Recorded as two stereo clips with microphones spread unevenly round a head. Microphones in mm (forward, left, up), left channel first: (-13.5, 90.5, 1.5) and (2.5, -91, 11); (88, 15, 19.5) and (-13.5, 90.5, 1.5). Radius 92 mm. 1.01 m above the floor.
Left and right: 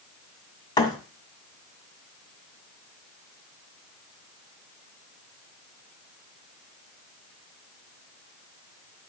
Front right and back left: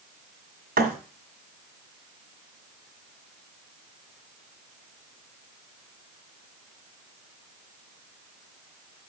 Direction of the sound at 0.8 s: 165° left.